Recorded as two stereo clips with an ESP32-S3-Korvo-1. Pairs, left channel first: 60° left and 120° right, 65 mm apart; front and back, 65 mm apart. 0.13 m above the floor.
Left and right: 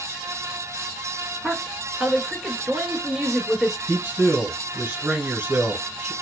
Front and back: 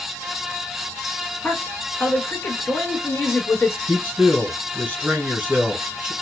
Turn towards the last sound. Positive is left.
turn(degrees=-145)